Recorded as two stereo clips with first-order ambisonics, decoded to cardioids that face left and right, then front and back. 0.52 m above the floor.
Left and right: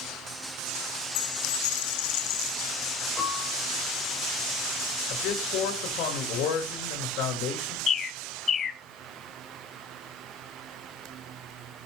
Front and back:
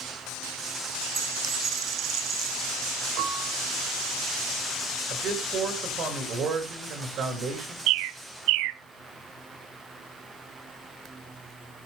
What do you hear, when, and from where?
1.1 s a dropped coin: 120° left, 3 m
3.2 s a piano: 170° left, 5 m
5.1 s a man speaking: 125° left, 7.5 m
7.9 s a bird: 155° left, 1.0 m